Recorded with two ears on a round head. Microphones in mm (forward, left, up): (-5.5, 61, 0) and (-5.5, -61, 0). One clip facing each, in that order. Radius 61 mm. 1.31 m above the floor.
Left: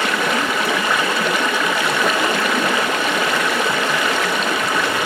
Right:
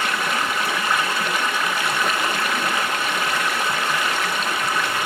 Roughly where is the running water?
Left.